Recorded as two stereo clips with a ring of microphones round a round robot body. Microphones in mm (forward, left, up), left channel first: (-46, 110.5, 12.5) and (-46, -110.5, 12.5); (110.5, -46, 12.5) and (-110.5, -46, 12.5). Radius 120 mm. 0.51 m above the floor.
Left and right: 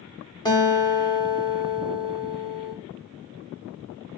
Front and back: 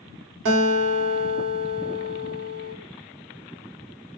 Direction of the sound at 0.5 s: 160° left.